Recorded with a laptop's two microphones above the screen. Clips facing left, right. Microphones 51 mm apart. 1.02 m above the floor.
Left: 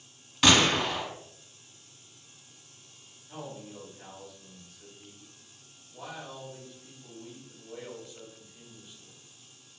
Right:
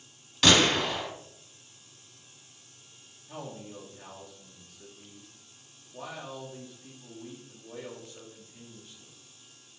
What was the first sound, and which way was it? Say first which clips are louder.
A gunshot: even; 10° left (ahead or behind).